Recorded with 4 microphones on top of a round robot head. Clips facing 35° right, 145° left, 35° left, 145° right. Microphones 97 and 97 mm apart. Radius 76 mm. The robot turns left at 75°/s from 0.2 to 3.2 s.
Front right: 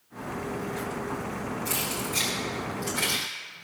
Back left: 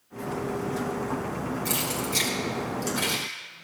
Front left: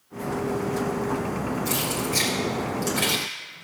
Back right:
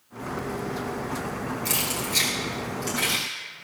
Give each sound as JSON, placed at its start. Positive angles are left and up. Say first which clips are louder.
{"t": 1.6, "sound": "keys jangling", "louder": "back left 2 dB, front left 3 dB", "azimuth_deg": 180, "distance_m": 1.7}